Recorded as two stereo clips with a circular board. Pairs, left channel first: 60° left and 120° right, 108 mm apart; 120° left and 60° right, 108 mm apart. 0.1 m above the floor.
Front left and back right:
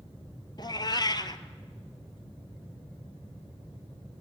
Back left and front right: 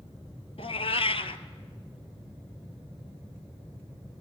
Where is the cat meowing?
105° left, 0.5 m.